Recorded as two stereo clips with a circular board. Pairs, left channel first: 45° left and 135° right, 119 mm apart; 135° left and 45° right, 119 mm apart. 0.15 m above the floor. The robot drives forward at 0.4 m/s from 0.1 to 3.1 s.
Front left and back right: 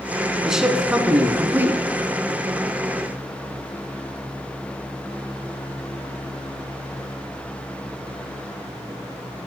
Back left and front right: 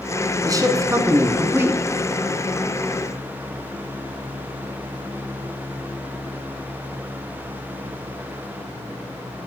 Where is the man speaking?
55° right, 1.7 m; by 1.8 s 90° right, 1.6 m.